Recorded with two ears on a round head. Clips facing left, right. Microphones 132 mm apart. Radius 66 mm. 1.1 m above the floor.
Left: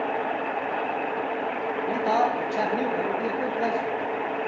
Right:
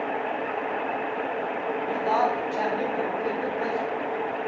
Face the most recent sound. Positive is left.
turn(degrees=45)  # may be behind; listen again after turning